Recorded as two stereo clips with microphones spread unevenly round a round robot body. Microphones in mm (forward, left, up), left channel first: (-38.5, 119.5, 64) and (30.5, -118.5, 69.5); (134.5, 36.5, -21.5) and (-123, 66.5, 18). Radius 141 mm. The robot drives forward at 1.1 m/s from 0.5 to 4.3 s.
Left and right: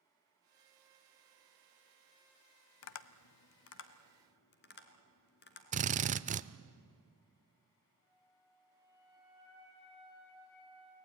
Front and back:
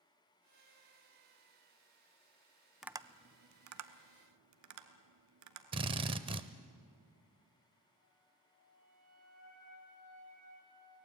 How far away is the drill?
About 0.7 m.